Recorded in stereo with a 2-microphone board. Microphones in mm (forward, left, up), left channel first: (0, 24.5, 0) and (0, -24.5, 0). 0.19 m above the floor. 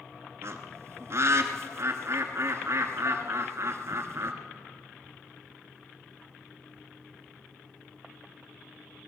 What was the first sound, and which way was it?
A bird, 65° right (ahead or behind).